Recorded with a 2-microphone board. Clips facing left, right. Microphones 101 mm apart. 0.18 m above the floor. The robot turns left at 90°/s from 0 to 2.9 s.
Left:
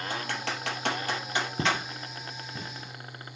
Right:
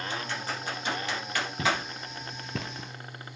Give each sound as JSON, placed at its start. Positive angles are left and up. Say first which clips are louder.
{"t": 0.1, "sound": "typing on a keyboard", "louder": "left 1 dB", "side_deg": 40, "distance_m": 3.0}
{"t": 1.6, "sound": "footsteps", "louder": "right 2 dB", "side_deg": 30, "distance_m": 1.5}